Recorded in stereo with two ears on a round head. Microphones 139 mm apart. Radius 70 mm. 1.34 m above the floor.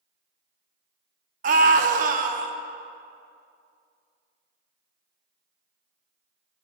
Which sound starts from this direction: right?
A scream, at 1.4 s.